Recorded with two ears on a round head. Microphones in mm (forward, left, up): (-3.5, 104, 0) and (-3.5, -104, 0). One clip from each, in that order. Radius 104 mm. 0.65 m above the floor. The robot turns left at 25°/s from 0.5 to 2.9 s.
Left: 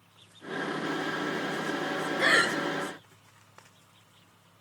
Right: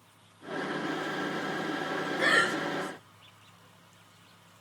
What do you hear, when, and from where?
2.2 s breathing: 10° left (ahead or behind), 0.7 m; by 2.5 s 15° left (ahead or behind), 0.7 m